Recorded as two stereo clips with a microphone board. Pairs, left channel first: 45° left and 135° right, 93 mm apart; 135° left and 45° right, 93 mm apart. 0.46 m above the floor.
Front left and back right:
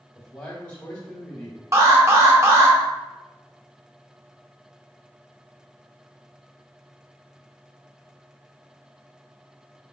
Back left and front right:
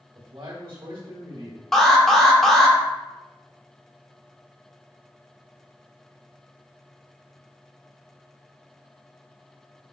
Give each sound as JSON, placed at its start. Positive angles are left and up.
{"t": 0.1, "sound": "a man speaking", "azimuth_deg": -25, "distance_m": 1.3}
{"t": 1.7, "sound": "an alarm", "azimuth_deg": -140, "distance_m": 0.8}